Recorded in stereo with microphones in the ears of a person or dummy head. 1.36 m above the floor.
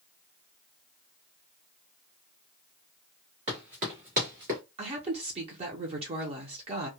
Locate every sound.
3.5 s running footsteps: 30° right (ahead or behind), 1.6 m; by 4.6 s 40° right (ahead or behind), 1.6 m
4.8 s a woman speaking: 35° right (ahead or behind), 0.6 m